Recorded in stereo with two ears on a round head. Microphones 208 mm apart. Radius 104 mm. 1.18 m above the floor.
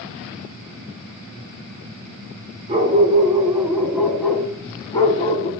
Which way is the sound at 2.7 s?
30° right (ahead or behind).